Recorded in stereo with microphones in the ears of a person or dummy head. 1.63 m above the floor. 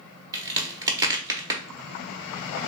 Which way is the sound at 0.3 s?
15° right (ahead or behind).